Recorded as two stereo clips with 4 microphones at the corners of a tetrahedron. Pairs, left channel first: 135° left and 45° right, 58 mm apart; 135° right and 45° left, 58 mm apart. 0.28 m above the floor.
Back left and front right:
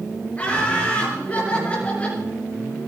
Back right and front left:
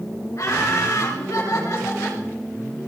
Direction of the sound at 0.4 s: 165° right.